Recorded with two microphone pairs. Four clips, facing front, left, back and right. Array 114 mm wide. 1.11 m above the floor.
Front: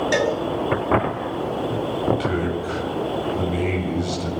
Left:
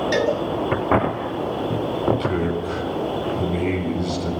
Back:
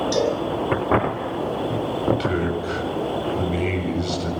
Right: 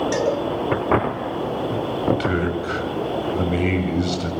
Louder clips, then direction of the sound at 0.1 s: Left 3 dB, front 1 dB; 15° left.